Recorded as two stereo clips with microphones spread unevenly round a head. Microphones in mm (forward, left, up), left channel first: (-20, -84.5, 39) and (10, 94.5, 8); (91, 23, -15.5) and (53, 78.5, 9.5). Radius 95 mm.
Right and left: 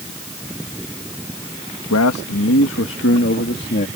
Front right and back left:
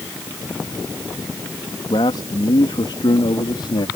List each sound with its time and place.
1.9 s a man speaking: 95° right; by 3.9 s 55° right